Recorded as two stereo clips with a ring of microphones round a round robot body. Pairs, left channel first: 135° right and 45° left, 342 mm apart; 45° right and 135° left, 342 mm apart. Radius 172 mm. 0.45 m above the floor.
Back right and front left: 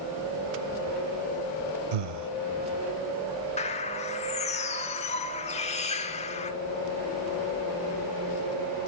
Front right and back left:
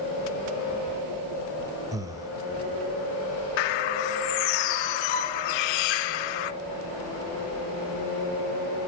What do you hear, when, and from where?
1.9 s breathing: 55° left, 0.6 m
3.6 s a bird: 65° right, 0.6 m